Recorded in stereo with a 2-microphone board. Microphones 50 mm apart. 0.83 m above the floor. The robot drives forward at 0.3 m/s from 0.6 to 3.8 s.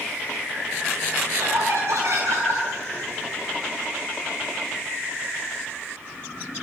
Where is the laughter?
65° right (ahead or behind), 8 m; by 2.6 s 60° right (ahead or behind), 8.5 m.